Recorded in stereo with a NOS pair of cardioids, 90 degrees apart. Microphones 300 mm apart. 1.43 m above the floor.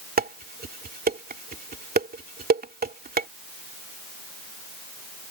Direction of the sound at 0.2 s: 30° right.